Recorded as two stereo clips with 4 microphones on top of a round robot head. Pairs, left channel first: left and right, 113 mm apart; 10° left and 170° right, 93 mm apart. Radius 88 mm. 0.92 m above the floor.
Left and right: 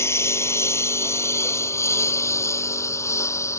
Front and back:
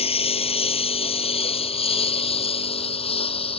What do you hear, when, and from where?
0.0 s a lawn mower: 25° left